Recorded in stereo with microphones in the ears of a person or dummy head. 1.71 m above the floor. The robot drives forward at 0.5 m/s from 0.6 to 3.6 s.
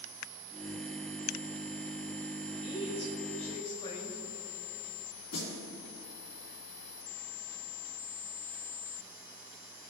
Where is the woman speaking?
40° left (ahead or behind), 2 m; by 4.2 s 35° left (ahead or behind), 2.5 m.